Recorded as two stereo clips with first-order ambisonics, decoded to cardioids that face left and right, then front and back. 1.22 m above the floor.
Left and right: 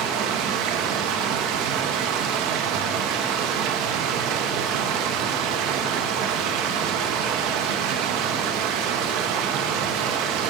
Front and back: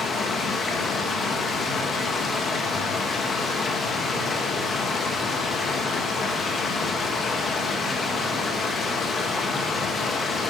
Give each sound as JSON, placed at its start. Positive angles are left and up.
{"t": 0.0, "sound": "running water", "azimuth_deg": -70, "distance_m": 1.5}